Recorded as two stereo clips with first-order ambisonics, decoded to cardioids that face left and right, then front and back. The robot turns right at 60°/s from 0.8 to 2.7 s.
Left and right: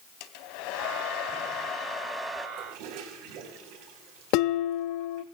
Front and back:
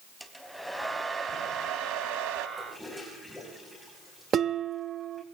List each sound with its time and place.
0.2 s a hair dryer: 90° left, 2 m; by 2.5 s 170° right, 2 m
2.6 s a toilet flushing: 95° right, 6 m; by 5.3 s 90° right, 6 m
4.3 s dishes clattering: 120° left, 0.9 m